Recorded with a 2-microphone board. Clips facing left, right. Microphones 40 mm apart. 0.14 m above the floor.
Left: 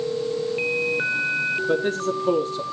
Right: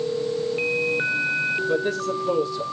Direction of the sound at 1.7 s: 40° left (ahead or behind).